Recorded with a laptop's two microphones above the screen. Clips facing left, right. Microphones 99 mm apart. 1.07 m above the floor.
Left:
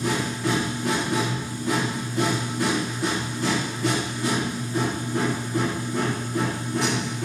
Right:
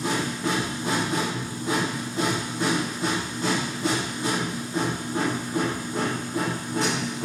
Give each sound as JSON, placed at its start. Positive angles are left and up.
{"t": 0.0, "sound": "a machine running", "side_deg": -25, "distance_m": 5.0}